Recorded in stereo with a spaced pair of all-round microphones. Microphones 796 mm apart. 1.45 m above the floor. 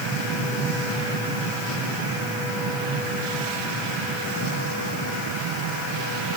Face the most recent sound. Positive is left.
No sound to turn to.